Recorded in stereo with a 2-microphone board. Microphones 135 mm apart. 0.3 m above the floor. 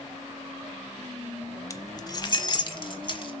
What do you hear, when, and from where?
1.7 s keys jangling: 25° left (ahead or behind), 0.8 m; by 3.3 s 40° left (ahead or behind), 1.6 m